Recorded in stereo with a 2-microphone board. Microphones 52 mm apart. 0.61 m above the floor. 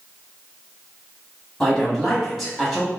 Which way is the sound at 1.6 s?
5° left (ahead or behind).